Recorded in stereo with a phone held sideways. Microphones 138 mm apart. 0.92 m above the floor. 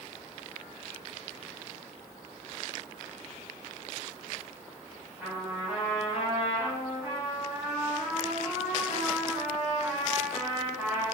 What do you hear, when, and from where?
5.2 s a trumpet: 15° right (ahead or behind), 1.5 m